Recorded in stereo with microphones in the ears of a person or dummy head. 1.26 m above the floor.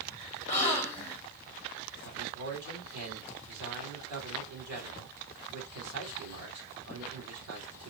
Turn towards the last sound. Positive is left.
turn(degrees=-85)